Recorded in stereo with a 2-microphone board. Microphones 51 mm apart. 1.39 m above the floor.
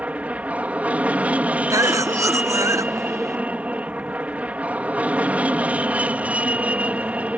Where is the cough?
75° right (ahead or behind).